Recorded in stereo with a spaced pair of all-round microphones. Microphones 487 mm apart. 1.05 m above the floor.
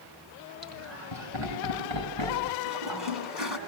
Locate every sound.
0.6 s laughter: 70° right (ahead or behind), 7 m; by 2.5 s 65° right (ahead or behind), 9.5 m
2.6 s a toilet flushing: 60° right (ahead or behind), 6.5 m